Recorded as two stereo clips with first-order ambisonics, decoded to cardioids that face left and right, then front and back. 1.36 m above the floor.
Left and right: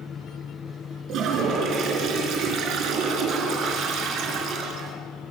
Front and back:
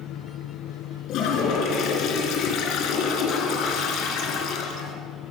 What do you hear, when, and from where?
1.1 s a toilet flushing: 45° right, 4 m